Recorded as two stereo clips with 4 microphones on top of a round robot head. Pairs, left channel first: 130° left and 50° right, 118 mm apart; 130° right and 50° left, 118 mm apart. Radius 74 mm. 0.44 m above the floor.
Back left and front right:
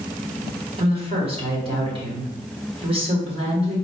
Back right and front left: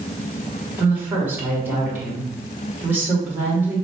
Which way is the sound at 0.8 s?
25° right.